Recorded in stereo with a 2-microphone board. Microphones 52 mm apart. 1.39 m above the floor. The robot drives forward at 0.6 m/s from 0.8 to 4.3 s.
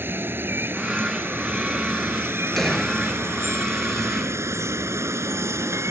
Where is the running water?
45° right (ahead or behind); by 5.9 s 65° right (ahead or behind).